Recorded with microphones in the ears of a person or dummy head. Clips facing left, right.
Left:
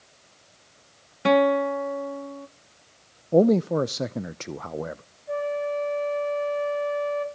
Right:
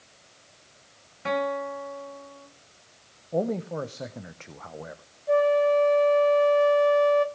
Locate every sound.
1.2 s a guitar: 70° left (ahead or behind), 1.2 m
3.3 s a man speaking: 65° left (ahead or behind), 0.5 m
5.3 s a flute: 55° right (ahead or behind), 0.8 m